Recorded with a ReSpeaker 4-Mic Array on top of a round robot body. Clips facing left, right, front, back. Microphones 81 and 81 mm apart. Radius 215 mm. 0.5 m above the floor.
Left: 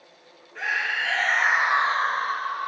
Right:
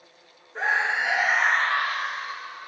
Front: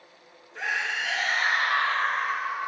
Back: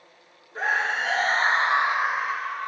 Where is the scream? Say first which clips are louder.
Right 3 dB, back 5 dB; 140° right, 1.3 m; by 2.7 s 85° left, 1.3 m.